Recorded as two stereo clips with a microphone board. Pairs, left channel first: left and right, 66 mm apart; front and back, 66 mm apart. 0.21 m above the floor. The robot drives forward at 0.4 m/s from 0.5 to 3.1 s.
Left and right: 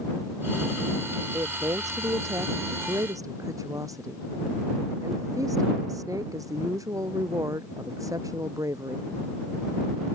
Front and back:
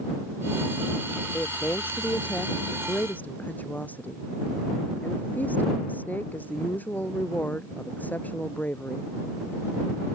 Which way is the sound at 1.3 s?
60° right.